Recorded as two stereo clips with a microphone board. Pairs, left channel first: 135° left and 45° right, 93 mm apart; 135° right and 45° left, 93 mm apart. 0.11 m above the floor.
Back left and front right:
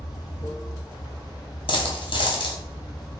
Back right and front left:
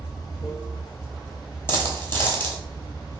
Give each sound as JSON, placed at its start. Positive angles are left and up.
{"t": 0.0, "sound": "running water", "azimuth_deg": 180, "distance_m": 0.9}
{"t": 1.7, "sound": "a dropped coin", "azimuth_deg": 160, "distance_m": 0.8}